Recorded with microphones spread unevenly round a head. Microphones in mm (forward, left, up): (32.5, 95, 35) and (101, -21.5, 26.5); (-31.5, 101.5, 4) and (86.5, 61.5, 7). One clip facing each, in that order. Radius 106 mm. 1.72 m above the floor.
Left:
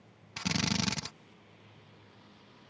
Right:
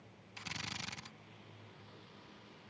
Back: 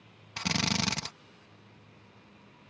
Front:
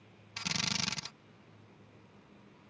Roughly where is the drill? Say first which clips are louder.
Left 16 dB, back 8 dB; behind left.